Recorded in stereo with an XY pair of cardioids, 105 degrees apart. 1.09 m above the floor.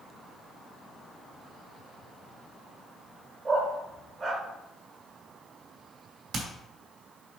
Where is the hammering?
60° right, 3 m.